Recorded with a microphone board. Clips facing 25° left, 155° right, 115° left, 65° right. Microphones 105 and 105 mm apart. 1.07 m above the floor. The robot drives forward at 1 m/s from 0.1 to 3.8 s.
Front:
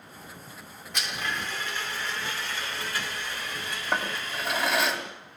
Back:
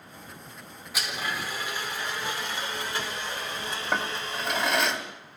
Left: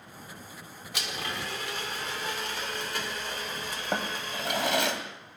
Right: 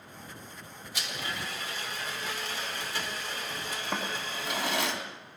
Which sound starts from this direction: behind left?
A blender, at 0.9 s.